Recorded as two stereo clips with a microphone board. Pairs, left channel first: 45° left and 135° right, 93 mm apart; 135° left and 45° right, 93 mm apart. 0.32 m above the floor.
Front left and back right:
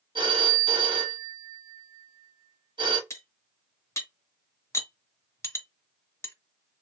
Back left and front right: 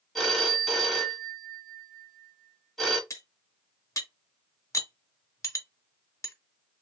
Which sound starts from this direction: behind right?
A phone ringing, at 0.1 s.